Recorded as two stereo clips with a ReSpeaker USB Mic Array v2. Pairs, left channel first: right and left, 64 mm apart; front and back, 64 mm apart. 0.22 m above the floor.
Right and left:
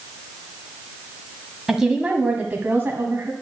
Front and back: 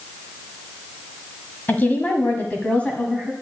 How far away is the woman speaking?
About 1.4 m.